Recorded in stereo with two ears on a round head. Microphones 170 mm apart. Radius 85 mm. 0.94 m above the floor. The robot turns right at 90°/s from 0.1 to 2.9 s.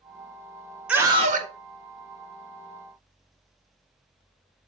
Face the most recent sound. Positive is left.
turn(degrees=5)